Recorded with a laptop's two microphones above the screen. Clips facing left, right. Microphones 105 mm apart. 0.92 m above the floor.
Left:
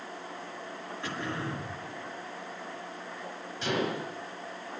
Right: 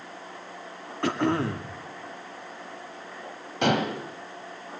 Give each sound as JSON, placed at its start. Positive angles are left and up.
{"t": 1.0, "sound": "throat clearing", "side_deg": -70, "distance_m": 2.0}
{"t": 3.6, "sound": "dishes clattering", "side_deg": -70, "distance_m": 3.5}